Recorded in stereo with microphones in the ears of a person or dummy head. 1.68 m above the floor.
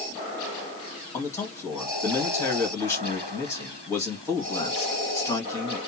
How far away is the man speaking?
About 1.8 m.